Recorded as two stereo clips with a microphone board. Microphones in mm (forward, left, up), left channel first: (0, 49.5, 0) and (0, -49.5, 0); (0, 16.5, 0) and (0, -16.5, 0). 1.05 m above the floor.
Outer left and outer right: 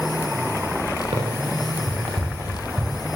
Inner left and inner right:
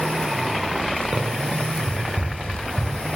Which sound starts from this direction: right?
Running footsteps, at 1.1 s.